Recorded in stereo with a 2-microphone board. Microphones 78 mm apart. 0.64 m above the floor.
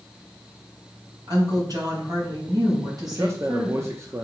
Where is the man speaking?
35° right (ahead or behind), 0.7 m.